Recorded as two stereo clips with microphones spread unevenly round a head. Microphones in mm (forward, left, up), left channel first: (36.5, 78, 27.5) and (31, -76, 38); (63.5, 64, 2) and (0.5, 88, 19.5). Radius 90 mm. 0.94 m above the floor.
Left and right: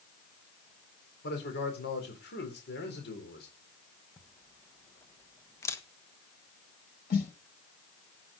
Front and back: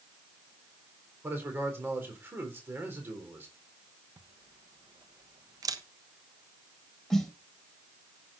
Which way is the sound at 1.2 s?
100° left.